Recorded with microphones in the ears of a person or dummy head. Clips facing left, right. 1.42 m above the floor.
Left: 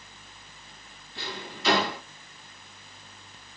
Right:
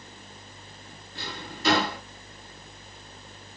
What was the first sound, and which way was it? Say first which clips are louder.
A drawer: left 1 dB; 35° right (ahead or behind).